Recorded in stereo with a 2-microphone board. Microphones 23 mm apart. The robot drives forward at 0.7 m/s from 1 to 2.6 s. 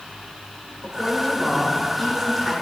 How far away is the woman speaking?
About 2.5 m.